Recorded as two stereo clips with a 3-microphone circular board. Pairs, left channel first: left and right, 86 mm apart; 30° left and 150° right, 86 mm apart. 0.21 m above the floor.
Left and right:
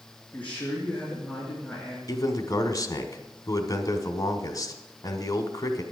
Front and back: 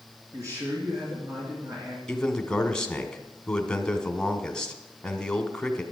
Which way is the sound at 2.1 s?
105° left.